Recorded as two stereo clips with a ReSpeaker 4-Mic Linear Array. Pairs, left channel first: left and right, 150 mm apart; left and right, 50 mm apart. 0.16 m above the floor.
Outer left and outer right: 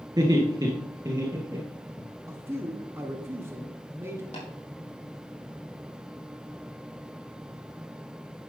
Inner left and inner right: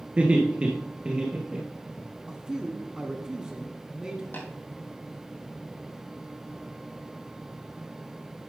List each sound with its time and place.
0.2 s laughter: 25° right (ahead or behind), 2 m; by 2.0 s 20° right (ahead or behind), 3 m
2.3 s a man speaking: 15° right (ahead or behind), 1.1 m
4.3 s tapping: 50° left (ahead or behind), 4.5 m